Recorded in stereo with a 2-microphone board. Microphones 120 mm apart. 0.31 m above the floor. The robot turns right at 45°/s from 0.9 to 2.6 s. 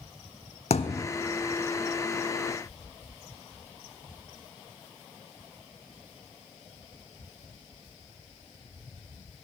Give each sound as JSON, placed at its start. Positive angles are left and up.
{"t": 0.7, "sound": "a thud", "side_deg": 60, "distance_m": 0.6}